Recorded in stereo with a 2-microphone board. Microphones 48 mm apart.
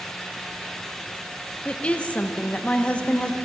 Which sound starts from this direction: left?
A woman speaking, at 1.6 s.